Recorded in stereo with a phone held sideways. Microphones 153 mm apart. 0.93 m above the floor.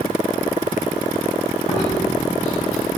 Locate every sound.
1.7 s chewing: 55° left (ahead or behind), 5 m